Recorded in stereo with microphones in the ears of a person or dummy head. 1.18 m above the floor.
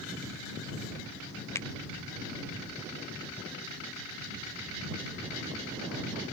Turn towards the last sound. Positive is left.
turn(degrees=15)  # may be behind; listen again after turning